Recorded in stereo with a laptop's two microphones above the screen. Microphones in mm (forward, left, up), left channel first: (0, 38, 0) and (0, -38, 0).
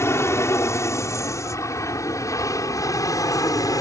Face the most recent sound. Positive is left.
turn(degrees=50)  # may be behind; listen again after turning